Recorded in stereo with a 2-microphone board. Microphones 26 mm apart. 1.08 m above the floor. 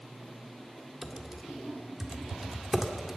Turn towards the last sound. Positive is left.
turn(degrees=-20)  # may be behind; listen again after turning